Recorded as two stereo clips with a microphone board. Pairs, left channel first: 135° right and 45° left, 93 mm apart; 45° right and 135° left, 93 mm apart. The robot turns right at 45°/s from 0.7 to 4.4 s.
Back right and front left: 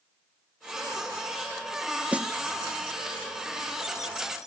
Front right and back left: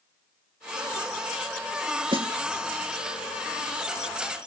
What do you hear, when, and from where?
2.1 s a snare drum: 120° left; by 2.3 s 130° left